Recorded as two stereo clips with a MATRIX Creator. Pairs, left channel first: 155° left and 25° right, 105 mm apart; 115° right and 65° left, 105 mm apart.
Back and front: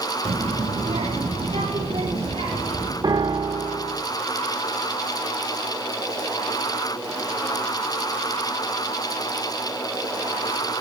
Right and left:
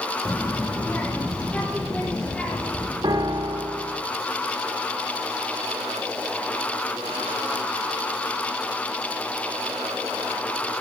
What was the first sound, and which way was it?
A child speaking, 40° right.